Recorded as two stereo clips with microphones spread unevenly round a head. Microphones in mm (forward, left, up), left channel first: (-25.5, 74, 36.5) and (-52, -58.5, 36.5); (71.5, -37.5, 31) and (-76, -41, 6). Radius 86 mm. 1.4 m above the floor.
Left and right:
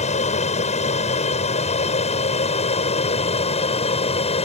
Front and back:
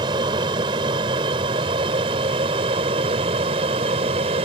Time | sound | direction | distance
0.0 | an aircraft | 115° left | ?